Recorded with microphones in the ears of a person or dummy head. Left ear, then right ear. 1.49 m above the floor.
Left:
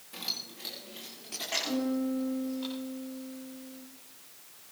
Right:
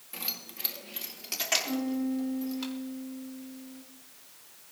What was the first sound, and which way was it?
Keys jangling, 15° right (ahead or behind).